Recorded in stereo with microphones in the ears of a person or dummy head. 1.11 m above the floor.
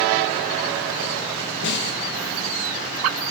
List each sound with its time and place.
1.6 s a snare drum: 60° left (ahead or behind), 1.1 m